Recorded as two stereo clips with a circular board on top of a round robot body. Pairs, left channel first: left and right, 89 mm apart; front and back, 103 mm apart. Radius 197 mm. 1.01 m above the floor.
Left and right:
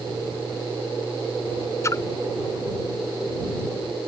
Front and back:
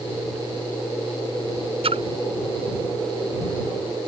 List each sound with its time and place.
1.8 s a splash: 150° left